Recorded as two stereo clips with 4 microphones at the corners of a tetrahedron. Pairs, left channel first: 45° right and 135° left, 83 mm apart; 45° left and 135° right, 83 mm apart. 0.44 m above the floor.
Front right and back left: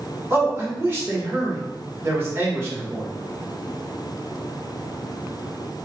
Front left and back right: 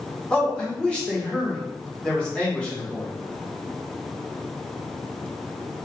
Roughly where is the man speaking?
Left.